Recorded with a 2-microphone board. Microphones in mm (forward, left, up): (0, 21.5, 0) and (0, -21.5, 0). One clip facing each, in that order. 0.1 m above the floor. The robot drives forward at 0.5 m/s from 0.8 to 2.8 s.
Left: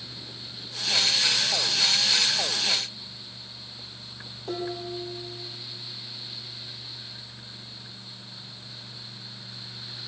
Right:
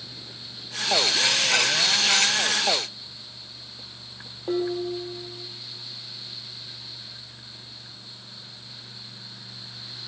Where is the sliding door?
No sliding door in this recording.